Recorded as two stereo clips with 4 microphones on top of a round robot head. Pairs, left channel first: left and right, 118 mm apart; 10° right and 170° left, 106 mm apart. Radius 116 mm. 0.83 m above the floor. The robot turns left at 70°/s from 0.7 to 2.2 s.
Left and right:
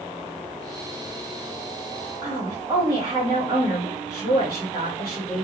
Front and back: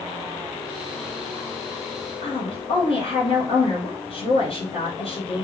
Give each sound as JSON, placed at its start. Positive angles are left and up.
{"t": 2.2, "sound": "a woman speaking", "azimuth_deg": -20, "distance_m": 1.5}